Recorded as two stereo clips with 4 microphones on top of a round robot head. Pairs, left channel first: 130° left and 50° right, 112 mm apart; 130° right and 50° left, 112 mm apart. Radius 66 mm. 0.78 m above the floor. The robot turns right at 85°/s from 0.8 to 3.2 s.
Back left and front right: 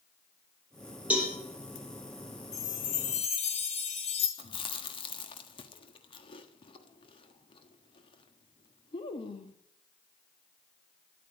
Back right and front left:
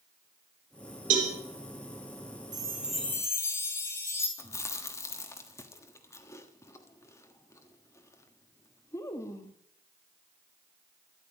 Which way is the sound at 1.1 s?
30° left.